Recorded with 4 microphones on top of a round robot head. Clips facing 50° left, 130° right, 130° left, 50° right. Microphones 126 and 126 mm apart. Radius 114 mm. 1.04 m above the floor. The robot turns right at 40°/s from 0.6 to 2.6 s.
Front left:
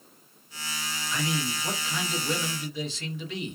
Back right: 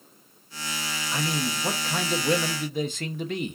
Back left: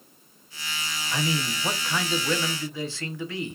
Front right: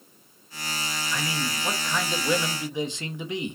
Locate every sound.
1.1 s a man speaking: 175° right, 1.0 m; by 3.6 s 115° right, 1.0 m